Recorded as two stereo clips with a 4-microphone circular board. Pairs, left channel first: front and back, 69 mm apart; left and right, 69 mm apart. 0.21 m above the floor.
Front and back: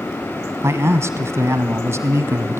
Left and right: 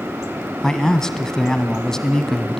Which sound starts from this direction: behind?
A man speaking, at 0.6 s.